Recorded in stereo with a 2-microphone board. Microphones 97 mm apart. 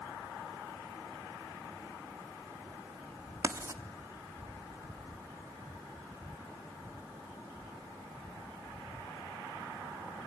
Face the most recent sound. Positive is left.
turn(degrees=-35)  # may be behind; listen again after turning